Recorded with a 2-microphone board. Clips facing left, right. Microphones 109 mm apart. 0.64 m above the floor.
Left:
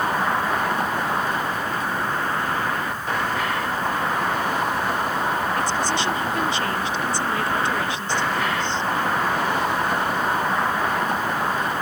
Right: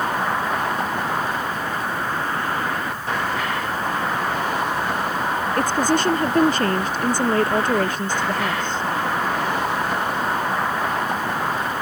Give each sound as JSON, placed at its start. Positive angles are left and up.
{"t": 5.6, "sound": "a woman speaking", "side_deg": -50}